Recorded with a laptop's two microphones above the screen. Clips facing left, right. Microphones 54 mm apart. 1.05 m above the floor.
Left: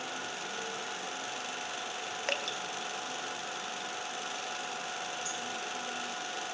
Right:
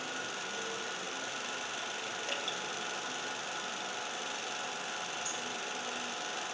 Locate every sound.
2.3 s dripping: 65° left (ahead or behind), 1.4 m